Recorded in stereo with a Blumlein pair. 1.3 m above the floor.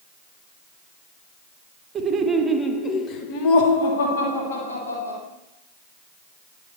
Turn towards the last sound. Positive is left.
turn(degrees=75)